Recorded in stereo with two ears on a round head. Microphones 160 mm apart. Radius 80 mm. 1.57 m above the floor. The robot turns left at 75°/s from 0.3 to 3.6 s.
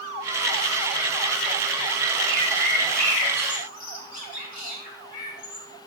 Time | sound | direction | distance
2.3 | a bird | 50° right (ahead or behind) | 6.5 m